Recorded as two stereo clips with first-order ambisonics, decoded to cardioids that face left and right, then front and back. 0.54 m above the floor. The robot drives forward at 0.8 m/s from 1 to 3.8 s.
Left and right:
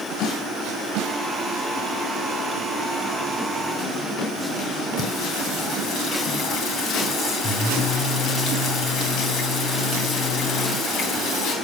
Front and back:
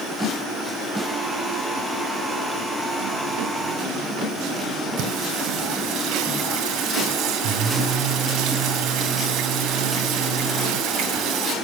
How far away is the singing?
About 3.5 m.